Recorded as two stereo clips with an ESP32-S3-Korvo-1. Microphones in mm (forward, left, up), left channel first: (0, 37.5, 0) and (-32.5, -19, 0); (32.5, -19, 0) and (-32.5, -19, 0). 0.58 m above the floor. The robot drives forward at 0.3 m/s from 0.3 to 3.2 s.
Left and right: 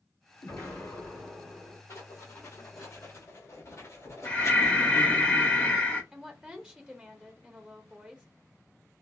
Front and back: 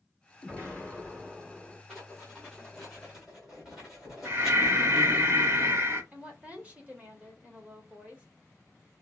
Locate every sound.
0.4 s an explosion: 70° left, 2 m; by 1.8 s 85° left, 2 m
1.9 s writing: 85° left, 1.9 m; by 5.2 s 95° left, 1.9 m
4.2 s breathing: 130° left, 1.0 m
6.1 s a woman speaking: 175° right, 1.0 m